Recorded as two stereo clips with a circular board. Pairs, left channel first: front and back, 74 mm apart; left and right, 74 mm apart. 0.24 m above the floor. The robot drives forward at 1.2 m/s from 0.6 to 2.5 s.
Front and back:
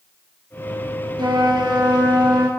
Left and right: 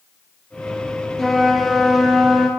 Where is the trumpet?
175° left, 2 m; by 2.5 s straight behind, 4 m.